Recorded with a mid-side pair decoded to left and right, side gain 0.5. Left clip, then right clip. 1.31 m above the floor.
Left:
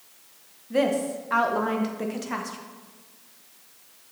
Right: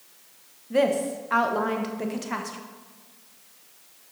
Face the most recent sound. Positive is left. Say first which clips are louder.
# right 1 dB
turn(degrees=-10)